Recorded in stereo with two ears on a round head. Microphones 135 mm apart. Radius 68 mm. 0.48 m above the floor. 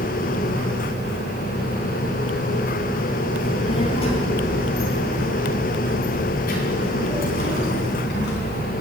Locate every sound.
3.4 s a child speaking: 35° left (ahead or behind), 3.5 m; by 8.7 s 80° left, 4 m